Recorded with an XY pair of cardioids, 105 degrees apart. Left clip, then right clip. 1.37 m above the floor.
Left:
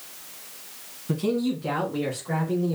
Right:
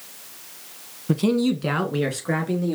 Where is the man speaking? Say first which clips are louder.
Right 4 dB; 35° right, 0.8 m; by 2.8 s 75° right, 3 m.